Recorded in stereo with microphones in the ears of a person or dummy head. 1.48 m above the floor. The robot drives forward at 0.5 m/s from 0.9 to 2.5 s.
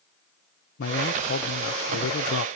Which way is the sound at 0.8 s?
65° left (ahead or behind).